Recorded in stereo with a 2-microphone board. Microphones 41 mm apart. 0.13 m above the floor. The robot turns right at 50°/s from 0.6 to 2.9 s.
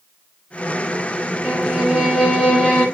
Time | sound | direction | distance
1.4 | a violin | 20° right (ahead or behind) | 1.0 m